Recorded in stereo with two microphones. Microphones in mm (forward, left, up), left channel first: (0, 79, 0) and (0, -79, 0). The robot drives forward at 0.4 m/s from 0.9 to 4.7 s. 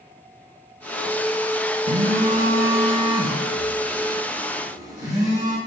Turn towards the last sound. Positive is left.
turn(degrees=-20)  # may be behind; listen again after turning